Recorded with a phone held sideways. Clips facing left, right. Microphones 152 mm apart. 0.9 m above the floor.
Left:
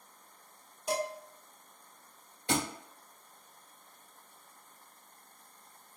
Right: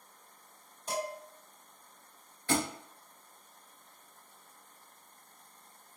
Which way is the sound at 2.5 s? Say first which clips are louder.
Right 1 dB; 20° left (ahead or behind).